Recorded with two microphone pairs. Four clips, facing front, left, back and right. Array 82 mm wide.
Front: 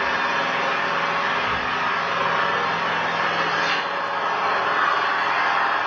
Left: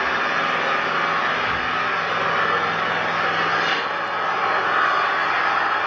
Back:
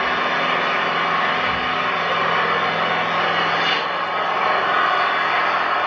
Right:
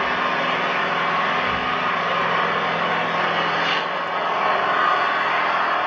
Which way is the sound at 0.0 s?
160° right.